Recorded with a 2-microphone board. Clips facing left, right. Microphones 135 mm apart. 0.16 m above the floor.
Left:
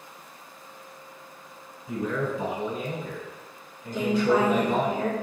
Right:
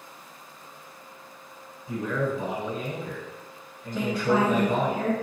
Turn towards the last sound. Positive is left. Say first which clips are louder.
# left 2 dB
turn(degrees=0)  # may be behind; listen again after turning